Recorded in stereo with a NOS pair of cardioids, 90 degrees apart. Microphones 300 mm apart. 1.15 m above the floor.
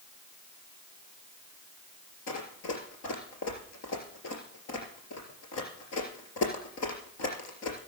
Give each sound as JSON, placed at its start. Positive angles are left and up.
{"t": 2.3, "sound": "running footsteps", "azimuth_deg": 65, "distance_m": 4.0}